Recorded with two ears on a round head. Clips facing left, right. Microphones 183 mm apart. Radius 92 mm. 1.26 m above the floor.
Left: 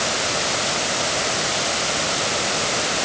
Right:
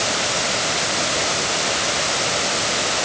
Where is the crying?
I don't hear crying.